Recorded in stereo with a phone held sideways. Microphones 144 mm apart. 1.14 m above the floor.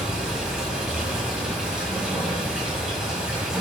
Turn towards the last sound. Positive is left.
turn(degrees=-5)  # may be behind; listen again after turning